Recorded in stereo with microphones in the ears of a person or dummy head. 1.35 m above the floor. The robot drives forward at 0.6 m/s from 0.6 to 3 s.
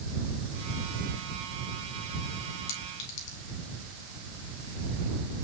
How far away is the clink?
About 3.5 m.